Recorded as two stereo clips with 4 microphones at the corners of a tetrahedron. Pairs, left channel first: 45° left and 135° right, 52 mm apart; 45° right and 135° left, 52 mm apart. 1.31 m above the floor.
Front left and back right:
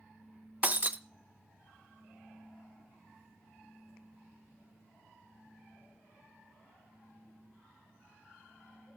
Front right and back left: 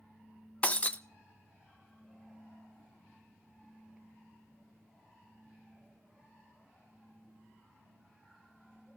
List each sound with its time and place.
0.6 s breaking glass: 95° right, 0.5 m